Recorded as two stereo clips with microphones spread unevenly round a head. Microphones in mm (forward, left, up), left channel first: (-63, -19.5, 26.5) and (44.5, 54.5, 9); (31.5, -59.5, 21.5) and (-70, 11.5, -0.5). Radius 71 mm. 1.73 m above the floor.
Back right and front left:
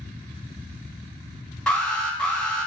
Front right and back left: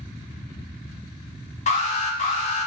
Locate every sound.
1.7 s an alarm: 60° right, 2.5 m